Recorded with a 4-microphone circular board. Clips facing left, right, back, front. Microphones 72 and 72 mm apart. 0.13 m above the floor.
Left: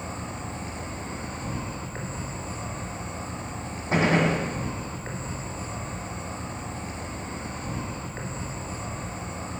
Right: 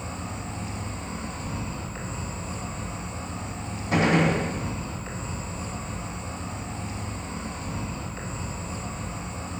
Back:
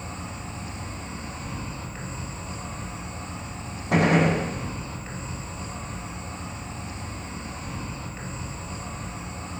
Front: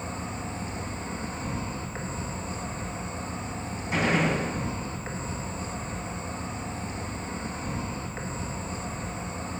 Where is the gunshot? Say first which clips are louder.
Right 1 dB, back 5 dB; 155° left, 2.5 m.